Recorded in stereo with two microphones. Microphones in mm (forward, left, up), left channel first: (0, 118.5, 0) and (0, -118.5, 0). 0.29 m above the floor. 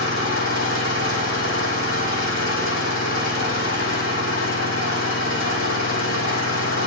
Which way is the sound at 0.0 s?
60° left (ahead or behind).